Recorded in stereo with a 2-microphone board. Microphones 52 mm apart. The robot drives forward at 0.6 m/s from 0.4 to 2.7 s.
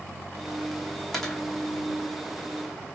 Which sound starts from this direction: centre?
A dropped coin, at 1.1 s.